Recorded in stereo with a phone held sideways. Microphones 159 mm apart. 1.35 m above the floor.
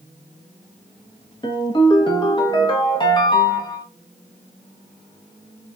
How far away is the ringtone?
About 1.1 m.